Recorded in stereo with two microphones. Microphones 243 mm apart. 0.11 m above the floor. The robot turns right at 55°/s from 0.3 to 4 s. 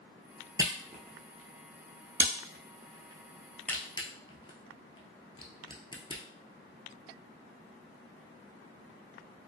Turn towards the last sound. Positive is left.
turn(degrees=20)  # may be behind; listen again after turning